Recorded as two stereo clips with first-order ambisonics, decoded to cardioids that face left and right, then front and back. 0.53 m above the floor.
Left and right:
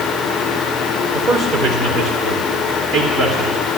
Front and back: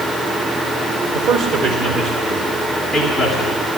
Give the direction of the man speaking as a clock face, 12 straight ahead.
5 o'clock.